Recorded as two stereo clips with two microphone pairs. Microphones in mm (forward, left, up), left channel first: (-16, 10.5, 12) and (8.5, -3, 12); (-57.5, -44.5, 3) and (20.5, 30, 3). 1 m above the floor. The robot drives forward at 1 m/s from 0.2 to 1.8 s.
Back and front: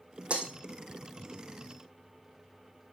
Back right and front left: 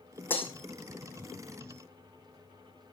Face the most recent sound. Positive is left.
turn(degrees=-105)